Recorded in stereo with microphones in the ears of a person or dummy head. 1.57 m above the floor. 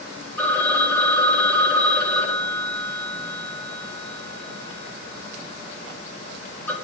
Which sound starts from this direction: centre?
A phone ringing, at 0.4 s.